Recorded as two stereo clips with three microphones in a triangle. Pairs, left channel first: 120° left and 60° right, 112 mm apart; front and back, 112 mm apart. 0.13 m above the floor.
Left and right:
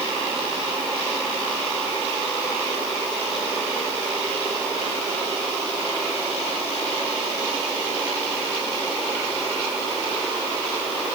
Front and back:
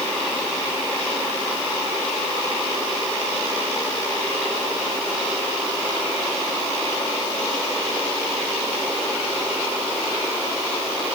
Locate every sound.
Only background noise.